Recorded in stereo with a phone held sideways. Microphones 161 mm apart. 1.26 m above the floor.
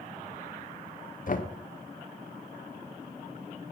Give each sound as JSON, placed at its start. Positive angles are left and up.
{"t": 1.3, "sound": "knocking", "side_deg": 55, "distance_m": 0.8}